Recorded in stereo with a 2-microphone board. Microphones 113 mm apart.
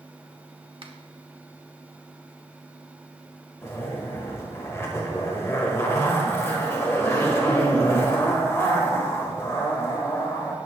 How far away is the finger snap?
About 1.2 m.